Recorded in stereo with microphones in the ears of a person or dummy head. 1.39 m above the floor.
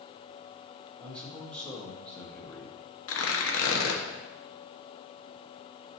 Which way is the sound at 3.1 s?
70° left (ahead or behind).